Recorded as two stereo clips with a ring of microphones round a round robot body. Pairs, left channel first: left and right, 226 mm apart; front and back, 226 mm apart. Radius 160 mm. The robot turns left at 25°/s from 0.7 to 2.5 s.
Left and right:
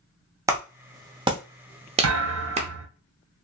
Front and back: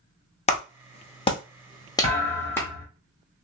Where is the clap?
25° right, 0.6 m; by 2.7 s 70° right, 0.6 m.